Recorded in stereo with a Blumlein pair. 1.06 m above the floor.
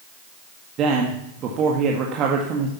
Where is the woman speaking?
30° right, 1.8 m.